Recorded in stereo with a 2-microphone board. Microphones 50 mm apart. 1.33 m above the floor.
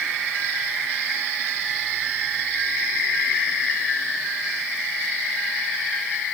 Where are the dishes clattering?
No dishes clattering in this recording.